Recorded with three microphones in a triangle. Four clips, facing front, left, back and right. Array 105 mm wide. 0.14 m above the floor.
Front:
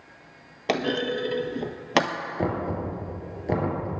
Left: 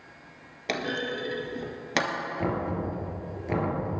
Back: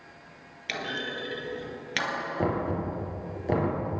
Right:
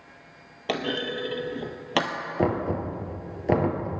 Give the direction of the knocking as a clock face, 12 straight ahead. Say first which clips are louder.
Right 5 dB, front 1 dB; 3 o'clock.